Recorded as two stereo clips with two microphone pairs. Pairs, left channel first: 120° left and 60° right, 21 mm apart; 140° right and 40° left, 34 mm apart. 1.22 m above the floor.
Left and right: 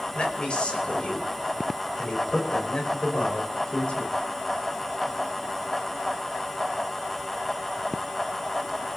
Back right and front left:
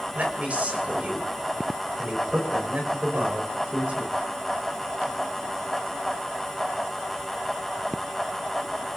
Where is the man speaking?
85° left, 5.5 m.